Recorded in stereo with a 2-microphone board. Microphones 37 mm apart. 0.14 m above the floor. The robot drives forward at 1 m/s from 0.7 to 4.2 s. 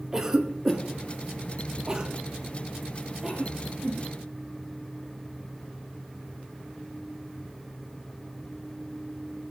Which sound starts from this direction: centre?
A cough, at 0.1 s.